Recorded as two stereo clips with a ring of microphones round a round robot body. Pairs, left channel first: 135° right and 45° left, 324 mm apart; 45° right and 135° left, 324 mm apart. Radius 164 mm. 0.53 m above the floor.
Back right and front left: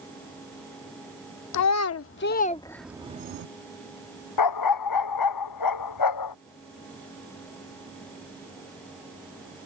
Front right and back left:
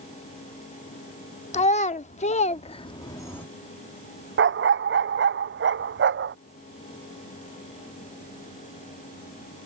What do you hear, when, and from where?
1.5 s a child speaking: 110° right; by 3.5 s 35° left
4.4 s a dog barking: 165° right